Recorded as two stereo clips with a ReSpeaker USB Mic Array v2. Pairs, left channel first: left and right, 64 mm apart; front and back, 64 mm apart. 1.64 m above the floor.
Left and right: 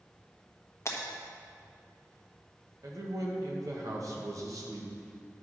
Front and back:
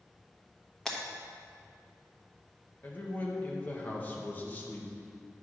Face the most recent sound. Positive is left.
turn(degrees=-60)